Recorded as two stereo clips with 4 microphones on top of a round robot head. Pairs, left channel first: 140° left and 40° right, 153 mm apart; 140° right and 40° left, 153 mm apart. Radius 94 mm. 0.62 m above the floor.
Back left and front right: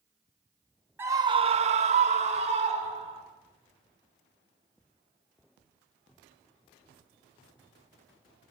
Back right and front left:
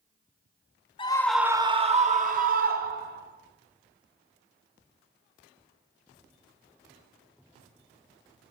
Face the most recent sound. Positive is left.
turn(degrees=15)